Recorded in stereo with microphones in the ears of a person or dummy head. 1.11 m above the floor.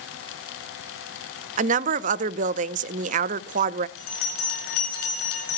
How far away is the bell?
About 2.5 m.